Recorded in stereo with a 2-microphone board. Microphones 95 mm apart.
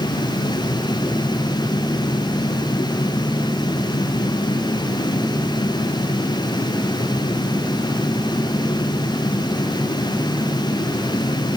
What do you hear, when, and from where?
Only background noise.